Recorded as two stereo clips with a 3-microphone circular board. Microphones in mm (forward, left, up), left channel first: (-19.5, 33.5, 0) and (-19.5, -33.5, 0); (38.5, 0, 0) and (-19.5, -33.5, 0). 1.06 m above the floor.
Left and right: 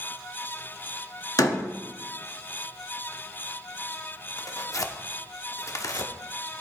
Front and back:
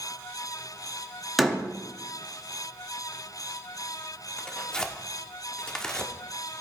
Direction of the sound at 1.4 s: 120° left.